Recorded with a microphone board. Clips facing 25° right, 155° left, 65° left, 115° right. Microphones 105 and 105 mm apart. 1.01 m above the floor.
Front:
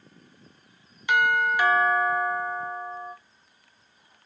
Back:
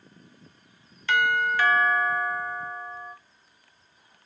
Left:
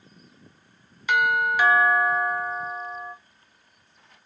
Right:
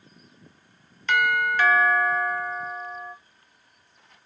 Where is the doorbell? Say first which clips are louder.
Front 1 dB, left 1 dB; 10° left, 0.6 m.